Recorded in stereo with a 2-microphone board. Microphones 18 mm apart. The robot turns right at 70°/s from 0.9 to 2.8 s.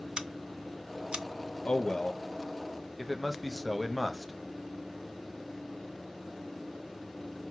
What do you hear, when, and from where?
0.2 s scissors: 50° right (ahead or behind), 0.5 m; by 1.2 s 75° right (ahead or behind), 0.5 m
1.6 s a man speaking: 60° left (ahead or behind), 0.6 m; by 4.3 s centre (ahead or behind), 0.6 m